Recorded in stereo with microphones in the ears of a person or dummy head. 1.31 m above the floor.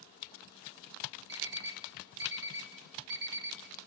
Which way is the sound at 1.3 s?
65° right (ahead or behind).